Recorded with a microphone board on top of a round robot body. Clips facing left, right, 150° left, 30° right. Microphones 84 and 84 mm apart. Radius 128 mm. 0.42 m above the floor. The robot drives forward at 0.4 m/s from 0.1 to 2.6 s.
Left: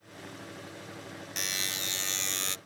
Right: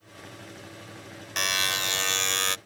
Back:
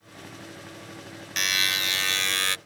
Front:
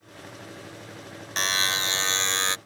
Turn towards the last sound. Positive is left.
turn(degrees=-95)